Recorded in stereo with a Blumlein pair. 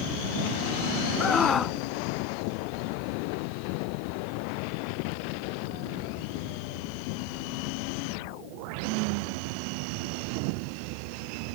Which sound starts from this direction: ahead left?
A scream, at 1.2 s.